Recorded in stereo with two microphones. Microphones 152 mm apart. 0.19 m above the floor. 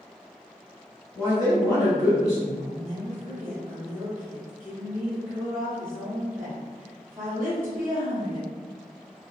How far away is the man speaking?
About 1.8 m.